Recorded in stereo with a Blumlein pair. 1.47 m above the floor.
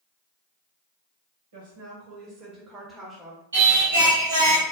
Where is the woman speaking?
60° right, 1.4 m; by 3.4 s 10° left, 1.1 m.